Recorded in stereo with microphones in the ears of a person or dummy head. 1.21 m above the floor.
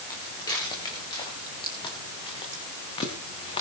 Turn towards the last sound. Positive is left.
turn(degrees=30)  # may be behind; listen again after turning